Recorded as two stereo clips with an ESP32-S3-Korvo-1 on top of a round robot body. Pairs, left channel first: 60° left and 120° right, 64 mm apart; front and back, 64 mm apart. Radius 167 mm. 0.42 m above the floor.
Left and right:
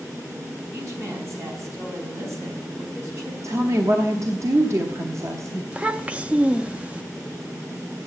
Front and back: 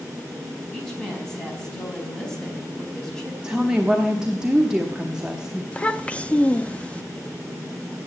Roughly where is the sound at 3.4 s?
Right.